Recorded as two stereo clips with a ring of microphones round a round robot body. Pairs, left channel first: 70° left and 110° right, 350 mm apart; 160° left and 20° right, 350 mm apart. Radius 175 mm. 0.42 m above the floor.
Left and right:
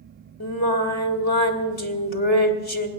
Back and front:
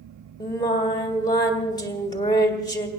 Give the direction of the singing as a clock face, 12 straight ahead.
9 o'clock.